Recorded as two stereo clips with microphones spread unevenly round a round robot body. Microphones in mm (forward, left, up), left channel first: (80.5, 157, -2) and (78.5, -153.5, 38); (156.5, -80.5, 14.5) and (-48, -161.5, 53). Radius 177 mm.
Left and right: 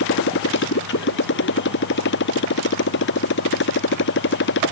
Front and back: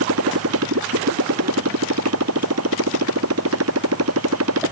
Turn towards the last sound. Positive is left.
turn(degrees=150)